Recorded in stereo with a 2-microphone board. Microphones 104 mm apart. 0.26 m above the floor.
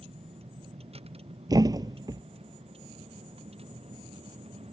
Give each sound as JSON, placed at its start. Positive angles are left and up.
{"t": 0.0, "sound": "a vehicle", "side_deg": -75}
{"t": 1.5, "sound": "a thud", "side_deg": -40}